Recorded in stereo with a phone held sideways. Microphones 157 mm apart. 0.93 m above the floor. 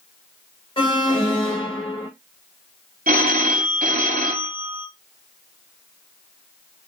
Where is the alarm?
30° left (ahead or behind), 1.0 m.